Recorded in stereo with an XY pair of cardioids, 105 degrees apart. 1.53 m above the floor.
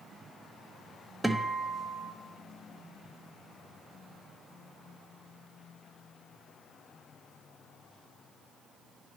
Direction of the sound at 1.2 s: Straight ahead.